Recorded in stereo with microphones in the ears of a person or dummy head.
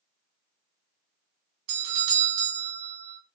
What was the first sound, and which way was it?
A doorbell, 75° right (ahead or behind).